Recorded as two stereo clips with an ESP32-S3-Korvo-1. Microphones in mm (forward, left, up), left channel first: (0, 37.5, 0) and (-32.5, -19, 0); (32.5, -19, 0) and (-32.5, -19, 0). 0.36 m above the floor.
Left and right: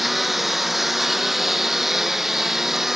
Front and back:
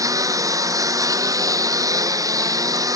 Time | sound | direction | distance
0.0 | a lawn mower | 150° left | ?